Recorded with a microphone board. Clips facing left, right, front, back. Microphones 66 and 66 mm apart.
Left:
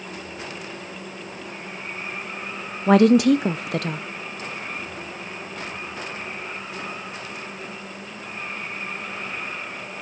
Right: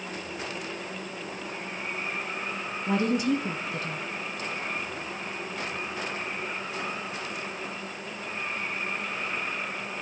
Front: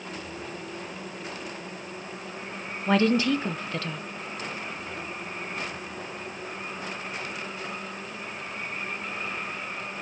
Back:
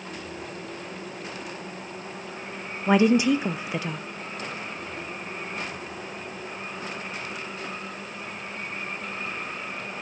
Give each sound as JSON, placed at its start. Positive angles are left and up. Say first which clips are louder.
{"t": 2.9, "sound": "a woman speaking", "louder": "left 11 dB, back 3 dB", "azimuth_deg": 105, "distance_m": 0.6}